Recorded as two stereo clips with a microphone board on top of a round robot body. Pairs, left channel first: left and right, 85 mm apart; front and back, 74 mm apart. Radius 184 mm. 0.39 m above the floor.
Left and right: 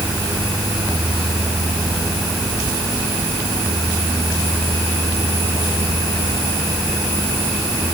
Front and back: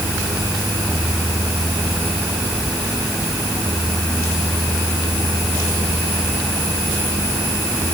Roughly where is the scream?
No scream in this recording.